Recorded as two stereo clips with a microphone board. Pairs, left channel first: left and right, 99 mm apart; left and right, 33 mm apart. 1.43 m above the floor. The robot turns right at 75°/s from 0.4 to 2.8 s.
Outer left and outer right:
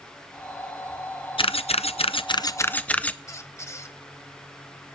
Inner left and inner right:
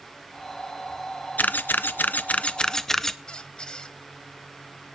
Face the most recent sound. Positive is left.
turn(degrees=30)  # may be behind; listen again after turning